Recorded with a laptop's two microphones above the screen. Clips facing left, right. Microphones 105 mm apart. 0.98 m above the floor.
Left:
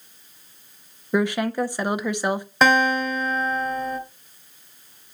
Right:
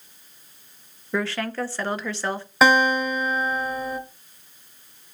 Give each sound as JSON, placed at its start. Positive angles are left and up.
{"t": 1.1, "sound": "a woman speaking", "side_deg": 15, "distance_m": 0.7}
{"t": 2.6, "sound": "a guitar", "side_deg": 0, "distance_m": 1.9}